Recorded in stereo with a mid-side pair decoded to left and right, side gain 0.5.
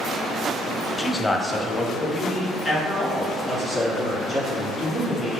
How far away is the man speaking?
About 0.5 m.